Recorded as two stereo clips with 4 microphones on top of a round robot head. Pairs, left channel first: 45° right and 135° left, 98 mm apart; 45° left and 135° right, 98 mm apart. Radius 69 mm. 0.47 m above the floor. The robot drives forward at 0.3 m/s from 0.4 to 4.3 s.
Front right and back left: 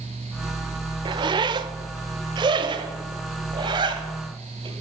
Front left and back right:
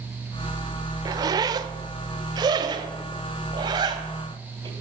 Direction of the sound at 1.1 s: 175° left.